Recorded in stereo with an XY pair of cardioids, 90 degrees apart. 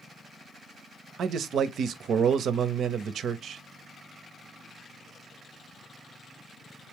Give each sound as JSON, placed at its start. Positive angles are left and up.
{"t": 1.2, "sound": "a man speaking", "azimuth_deg": -70, "distance_m": 0.6}